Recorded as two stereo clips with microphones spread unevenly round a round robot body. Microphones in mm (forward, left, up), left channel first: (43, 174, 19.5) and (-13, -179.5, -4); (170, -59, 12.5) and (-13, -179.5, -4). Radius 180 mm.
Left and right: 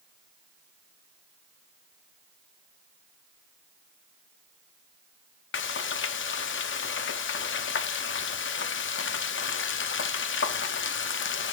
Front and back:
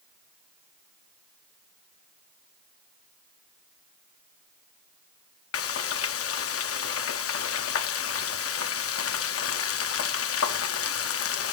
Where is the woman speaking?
I don't hear a woman speaking.